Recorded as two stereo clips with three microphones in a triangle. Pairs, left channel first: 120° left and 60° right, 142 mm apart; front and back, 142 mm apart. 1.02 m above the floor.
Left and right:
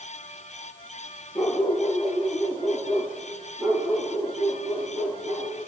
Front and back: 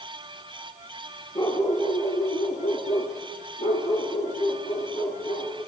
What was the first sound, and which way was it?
A dog barking, 40° left.